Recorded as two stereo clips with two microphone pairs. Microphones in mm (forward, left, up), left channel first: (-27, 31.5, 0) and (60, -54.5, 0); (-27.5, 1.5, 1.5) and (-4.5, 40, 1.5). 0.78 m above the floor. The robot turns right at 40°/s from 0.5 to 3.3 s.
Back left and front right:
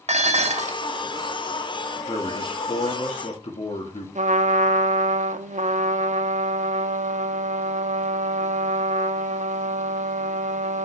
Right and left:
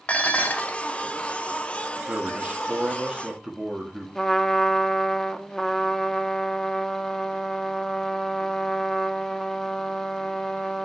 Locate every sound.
0.1 s dishes clattering: 65° right, 0.9 m; by 0.8 s 55° right, 0.9 m
2.1 s a man speaking: 90° left, 1.6 m; by 4.0 s 140° left, 1.6 m
4.2 s a trumpet: 40° right, 0.6 m